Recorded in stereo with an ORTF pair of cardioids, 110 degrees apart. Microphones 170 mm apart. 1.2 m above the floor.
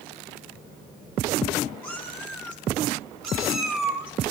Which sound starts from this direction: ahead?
A cat meowing, at 1.8 s.